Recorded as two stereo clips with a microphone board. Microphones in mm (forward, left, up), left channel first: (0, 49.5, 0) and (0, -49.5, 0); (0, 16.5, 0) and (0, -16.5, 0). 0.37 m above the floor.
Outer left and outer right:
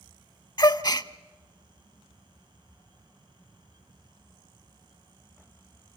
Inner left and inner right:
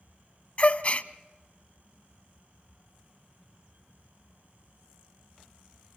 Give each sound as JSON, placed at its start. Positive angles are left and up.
{"t": 0.6, "sound": "a gasp", "side_deg": 45, "distance_m": 0.6}